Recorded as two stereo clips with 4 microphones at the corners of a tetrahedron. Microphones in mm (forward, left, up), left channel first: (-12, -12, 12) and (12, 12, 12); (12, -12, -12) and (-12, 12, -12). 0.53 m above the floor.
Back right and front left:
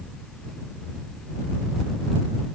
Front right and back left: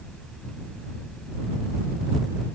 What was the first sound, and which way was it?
Only background noise.